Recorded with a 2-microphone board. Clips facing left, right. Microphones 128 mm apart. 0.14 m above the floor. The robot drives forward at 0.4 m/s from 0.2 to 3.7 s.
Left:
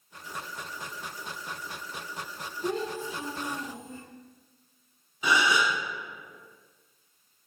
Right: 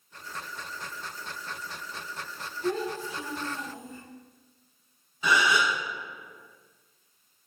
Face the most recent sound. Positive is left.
turn(degrees=15)  # may be behind; listen again after turning